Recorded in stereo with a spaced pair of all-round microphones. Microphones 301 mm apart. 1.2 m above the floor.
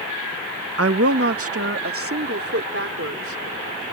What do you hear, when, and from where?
0.8 s a woman speaking: 50° right (ahead or behind); by 3.8 s 45° right (ahead or behind)